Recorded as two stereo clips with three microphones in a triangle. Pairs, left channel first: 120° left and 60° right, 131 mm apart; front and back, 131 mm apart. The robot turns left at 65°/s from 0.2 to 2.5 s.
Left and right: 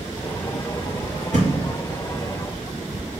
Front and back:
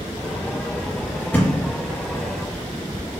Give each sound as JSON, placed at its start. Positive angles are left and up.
{"t": 1.3, "sound": "a thud", "azimuth_deg": -75, "distance_m": 1.4}